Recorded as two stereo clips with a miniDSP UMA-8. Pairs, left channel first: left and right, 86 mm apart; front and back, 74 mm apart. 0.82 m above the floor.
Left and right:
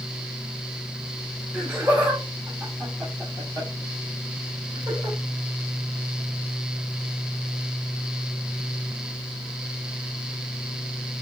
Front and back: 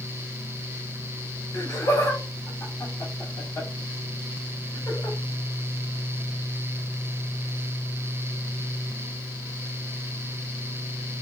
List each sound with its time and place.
1.5 s laughter: 25° right, 1.1 m; by 5.2 s 55° right, 3 m